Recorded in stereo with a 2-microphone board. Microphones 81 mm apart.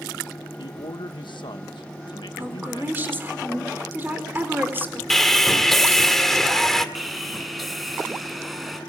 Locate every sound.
0.6 s a man speaking: 80° left, 1.3 m
2.4 s a woman speaking: 25° right (ahead or behind), 4 m
5.1 s sawing: 5° left (ahead or behind), 1.8 m
7.0 s sawing: centre (ahead or behind), 3.5 m